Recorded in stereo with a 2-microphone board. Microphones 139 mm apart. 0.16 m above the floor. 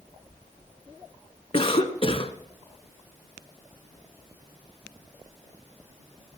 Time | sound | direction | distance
1.5 | a cough | 45° left (ahead or behind) | 1.4 m